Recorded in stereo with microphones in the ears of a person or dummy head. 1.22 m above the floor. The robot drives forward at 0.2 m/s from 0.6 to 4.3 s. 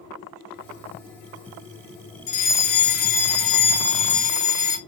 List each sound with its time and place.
2.3 s a fire alarm: 40° left (ahead or behind), 1.1 m; by 4.8 s 35° left (ahead or behind), 1.1 m